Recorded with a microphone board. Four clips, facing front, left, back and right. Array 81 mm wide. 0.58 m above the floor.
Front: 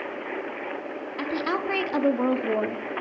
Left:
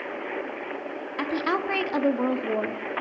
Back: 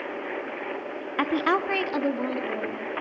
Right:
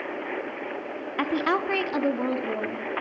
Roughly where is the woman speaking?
Behind.